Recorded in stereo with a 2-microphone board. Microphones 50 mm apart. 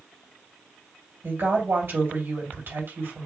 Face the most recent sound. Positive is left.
turn(degrees=-55)  # may be behind; listen again after turning